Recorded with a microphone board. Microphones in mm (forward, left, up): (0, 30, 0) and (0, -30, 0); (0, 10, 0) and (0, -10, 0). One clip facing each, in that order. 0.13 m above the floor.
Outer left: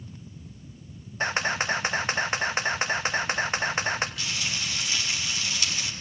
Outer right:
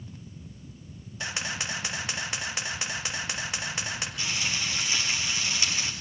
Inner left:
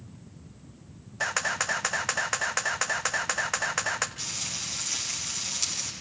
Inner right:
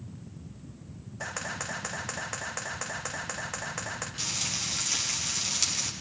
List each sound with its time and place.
1.2 s a camera shutter: 40° left (ahead or behind), 1.8 m
4.2 s frying: 20° right (ahead or behind), 7.5 m